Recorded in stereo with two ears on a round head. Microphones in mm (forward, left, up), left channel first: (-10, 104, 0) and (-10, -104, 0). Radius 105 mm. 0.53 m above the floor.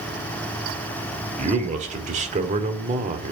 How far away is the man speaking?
About 1.5 m.